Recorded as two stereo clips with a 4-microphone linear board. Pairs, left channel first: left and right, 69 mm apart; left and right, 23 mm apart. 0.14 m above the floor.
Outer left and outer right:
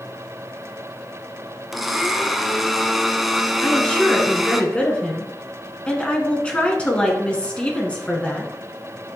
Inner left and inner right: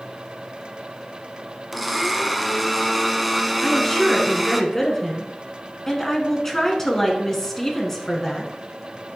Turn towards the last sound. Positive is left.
turn(degrees=15)  # may be behind; listen again after turning